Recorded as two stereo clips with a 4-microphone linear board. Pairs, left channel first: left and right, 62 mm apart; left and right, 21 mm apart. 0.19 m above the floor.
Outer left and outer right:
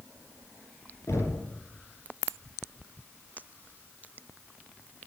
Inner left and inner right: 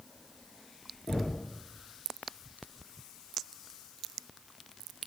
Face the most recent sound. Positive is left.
turn(degrees=45)  # may be behind; listen again after turning